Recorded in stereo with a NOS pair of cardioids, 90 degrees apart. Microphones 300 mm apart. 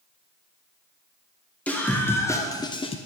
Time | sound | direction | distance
1.7 | a scream | 5° left | 1.2 m